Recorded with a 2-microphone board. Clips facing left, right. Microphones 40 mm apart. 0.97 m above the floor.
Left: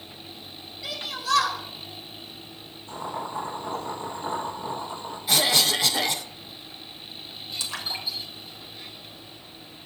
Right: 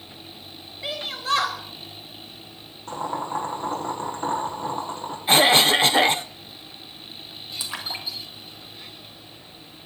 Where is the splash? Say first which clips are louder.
Even; 20° right (ahead or behind), 2.5 m.